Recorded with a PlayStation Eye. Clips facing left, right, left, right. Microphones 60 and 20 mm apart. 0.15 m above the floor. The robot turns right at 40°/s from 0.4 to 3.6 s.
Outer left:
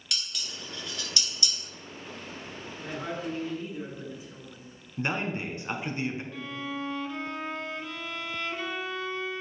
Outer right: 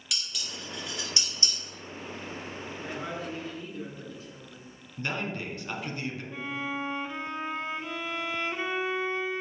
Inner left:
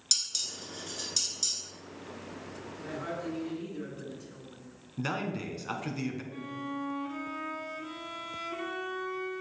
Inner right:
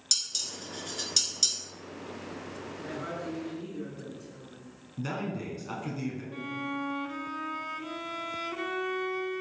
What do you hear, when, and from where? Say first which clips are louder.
0.1 s dishes clattering: even, even; 5° right (ahead or behind), 1.5 m; by 1.6 s 40° right (ahead or behind), 1.5 m
2.8 s a woman speaking: outer left 2 dB, inner left 1 dB; 10° right, 2 m; by 4.7 s 25° left, 2 m
5.0 s a man speaking: outer left 3 dB, inner left 1 dB; 25° left (ahead or behind), 1.1 m
6.3 s a violin: outer right 2 dB, inner right 3 dB; 25° right (ahead or behind), 0.5 m